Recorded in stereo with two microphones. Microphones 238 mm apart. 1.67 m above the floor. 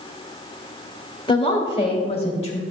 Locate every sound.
1.3 s a woman speaking: 20° left (ahead or behind), 1.9 m; by 2.6 s 25° left (ahead or behind), 3 m